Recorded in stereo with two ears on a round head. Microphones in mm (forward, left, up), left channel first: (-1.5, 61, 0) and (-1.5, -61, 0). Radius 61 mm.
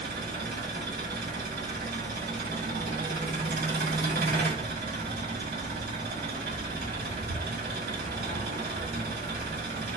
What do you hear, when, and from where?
0.0 s an engine running: 75° right (ahead or behind), 1.6 m